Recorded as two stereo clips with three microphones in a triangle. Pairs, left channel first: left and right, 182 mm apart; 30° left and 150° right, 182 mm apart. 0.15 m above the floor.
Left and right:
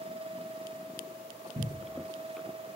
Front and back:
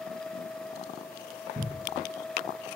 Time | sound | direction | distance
1.6 | a cupboard door | 105° right | 2 m